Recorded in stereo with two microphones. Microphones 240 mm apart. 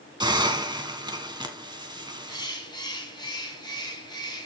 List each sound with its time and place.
0.2 s a hiss: 20° right (ahead or behind), 1.7 m
2.3 s a bird: 15° left (ahead or behind), 3 m